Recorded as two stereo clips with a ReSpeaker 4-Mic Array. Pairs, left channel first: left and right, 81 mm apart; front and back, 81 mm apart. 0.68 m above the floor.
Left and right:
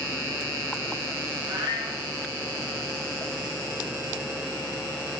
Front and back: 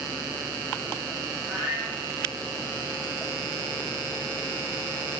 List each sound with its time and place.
1.5 s a cat meowing: 110° right, 4.5 m